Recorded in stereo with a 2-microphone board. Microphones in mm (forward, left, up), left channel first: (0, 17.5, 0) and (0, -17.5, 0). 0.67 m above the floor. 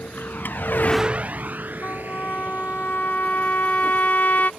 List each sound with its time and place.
0.0 s a vehicle: 75° left (ahead or behind); by 4.6 s 65° right (ahead or behind)
1.8 s a trumpet: 55° left (ahead or behind)